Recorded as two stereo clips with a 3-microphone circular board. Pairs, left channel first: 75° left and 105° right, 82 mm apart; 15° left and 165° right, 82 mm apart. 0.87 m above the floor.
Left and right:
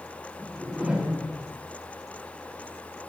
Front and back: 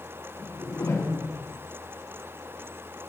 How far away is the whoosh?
About 1.5 m.